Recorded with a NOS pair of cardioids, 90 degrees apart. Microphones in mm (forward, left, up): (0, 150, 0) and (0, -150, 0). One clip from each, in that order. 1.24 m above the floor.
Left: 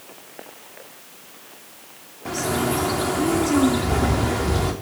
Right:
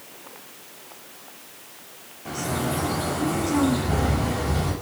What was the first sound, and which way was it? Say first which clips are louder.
A bird: left 4 dB; 50° left.